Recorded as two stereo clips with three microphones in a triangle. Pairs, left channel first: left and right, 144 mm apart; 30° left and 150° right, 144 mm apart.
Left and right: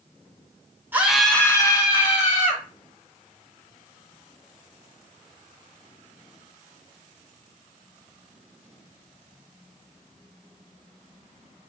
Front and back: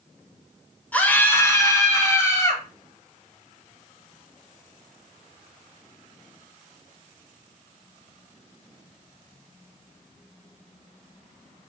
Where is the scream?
35° right, 0.9 m; by 2.6 s 90° left, 1.4 m.